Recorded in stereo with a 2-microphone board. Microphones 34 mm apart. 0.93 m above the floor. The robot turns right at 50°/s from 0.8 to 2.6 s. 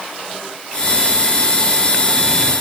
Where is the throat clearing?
I don't hear throat clearing.